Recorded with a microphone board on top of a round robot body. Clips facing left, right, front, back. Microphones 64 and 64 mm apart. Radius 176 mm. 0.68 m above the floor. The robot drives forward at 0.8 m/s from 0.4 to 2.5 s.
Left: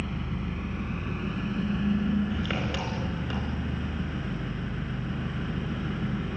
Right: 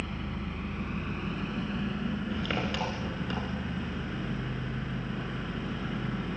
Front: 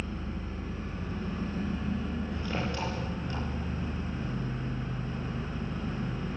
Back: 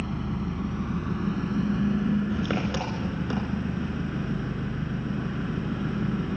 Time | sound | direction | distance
0.0 | an engine running | straight behind | 2.5 m